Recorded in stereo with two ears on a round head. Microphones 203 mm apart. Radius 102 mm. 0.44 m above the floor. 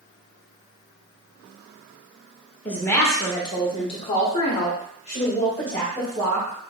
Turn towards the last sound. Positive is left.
turn(degrees=20)  # may be behind; listen again after turning